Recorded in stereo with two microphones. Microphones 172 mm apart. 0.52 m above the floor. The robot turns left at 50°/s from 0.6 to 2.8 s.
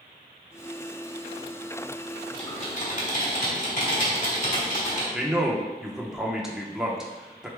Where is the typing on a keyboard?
25° left (ahead or behind), 1.8 m; by 5.0 s 45° left (ahead or behind), 1.8 m.